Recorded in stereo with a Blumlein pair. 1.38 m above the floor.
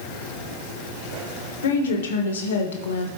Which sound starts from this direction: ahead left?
A woman speaking, at 1.6 s.